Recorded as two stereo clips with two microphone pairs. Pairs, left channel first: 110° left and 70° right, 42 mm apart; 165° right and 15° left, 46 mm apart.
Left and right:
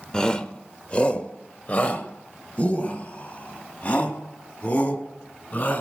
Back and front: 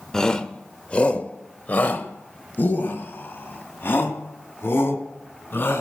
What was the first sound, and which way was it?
A shout, 145° left.